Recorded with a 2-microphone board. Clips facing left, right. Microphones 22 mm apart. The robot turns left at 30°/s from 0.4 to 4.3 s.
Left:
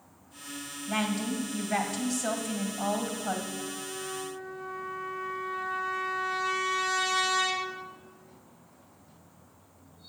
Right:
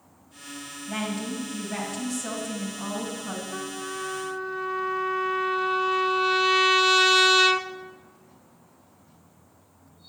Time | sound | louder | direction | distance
0.9 | a woman speaking | left 1 dB | 160° left | 2 m
3.5 | a trumpet | right 4 dB | 85° right | 0.6 m